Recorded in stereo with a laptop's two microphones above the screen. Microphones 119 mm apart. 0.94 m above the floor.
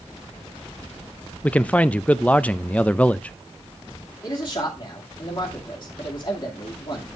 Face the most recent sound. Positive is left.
turn(degrees=45)  # may be behind; listen again after turning